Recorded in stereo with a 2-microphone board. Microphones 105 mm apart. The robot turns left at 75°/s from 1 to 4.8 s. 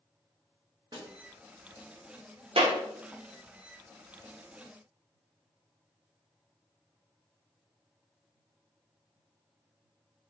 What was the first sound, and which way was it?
A snare drum, 45° right (ahead or behind).